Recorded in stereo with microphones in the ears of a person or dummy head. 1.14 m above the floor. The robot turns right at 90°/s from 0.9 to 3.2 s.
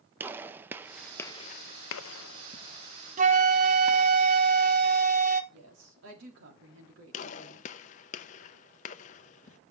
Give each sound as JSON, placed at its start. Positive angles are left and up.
{"t": 0.2, "sound": "a gunshot", "side_deg": -15, "distance_m": 0.6}
{"t": 3.2, "sound": "a flute", "side_deg": -35, "distance_m": 0.9}
{"t": 5.5, "sound": "a woman speaking", "side_deg": -70, "distance_m": 3.5}
{"t": 7.1, "sound": "a gunshot", "side_deg": 40, "distance_m": 0.6}